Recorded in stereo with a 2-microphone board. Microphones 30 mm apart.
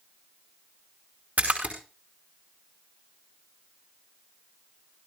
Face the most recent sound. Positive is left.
turn(degrees=-55)  # may be behind; listen again after turning